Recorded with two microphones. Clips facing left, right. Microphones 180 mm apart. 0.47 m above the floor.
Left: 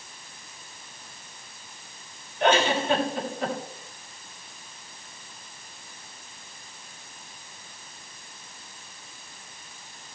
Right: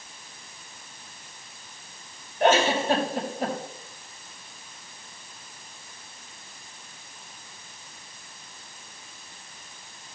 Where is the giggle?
45° right (ahead or behind), 4.5 m.